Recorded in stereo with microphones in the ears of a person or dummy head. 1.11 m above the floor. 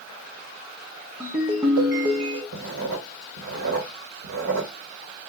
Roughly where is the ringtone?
Centre.